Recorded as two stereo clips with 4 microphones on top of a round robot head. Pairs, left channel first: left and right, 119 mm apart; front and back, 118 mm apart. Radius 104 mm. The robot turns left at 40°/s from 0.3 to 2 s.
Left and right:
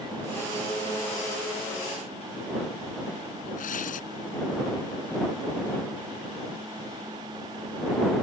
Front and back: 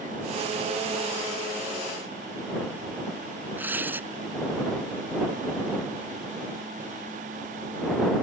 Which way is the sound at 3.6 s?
105° left.